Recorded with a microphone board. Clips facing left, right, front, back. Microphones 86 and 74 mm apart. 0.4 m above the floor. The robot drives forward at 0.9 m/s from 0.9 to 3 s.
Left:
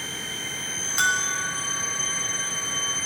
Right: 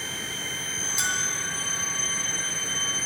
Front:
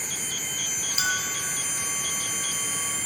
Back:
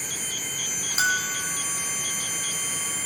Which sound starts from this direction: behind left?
A bell, at 1.0 s.